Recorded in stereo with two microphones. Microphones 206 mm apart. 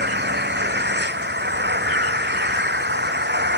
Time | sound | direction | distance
0.0 | an engine running | 55° right (ahead or behind) | ?